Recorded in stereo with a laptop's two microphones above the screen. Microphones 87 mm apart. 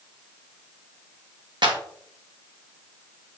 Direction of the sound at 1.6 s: 60° right (ahead or behind).